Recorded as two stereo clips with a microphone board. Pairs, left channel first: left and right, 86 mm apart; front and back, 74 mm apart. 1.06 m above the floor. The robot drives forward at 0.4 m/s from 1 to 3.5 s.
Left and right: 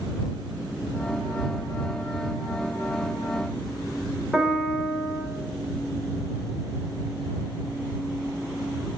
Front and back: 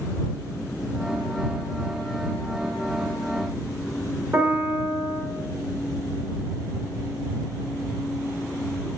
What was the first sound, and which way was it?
A piano, 165° right.